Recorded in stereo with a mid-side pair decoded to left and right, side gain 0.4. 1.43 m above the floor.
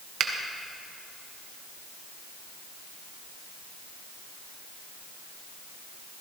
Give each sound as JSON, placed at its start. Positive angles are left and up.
{"t": 0.2, "sound": "a finger snap", "azimuth_deg": -65, "distance_m": 1.4}